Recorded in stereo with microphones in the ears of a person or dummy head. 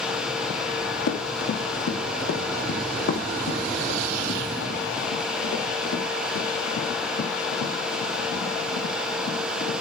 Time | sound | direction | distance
1.1 | running footsteps | 60° left (ahead or behind) | 4 m